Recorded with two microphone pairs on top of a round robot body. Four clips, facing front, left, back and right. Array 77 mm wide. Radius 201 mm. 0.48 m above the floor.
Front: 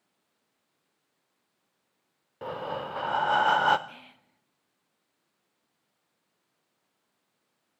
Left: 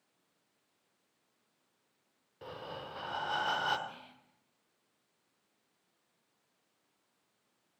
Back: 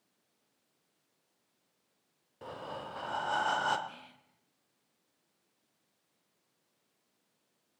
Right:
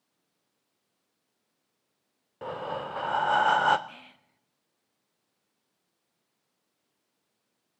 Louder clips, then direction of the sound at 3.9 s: Right 2 dB, front 2 dB; 55° right.